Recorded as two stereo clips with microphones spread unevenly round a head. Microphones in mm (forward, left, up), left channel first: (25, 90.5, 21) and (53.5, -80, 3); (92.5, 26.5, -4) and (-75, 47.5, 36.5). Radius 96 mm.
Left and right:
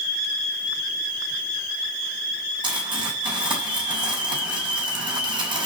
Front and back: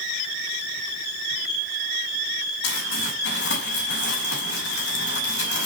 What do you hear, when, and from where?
2.6 s crumpling: 20° right, 5.5 m